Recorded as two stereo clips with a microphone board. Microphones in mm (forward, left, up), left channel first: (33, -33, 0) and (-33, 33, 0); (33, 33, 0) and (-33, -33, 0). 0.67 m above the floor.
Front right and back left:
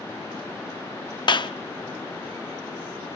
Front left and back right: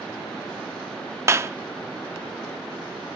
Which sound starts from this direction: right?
A clap, at 1.3 s.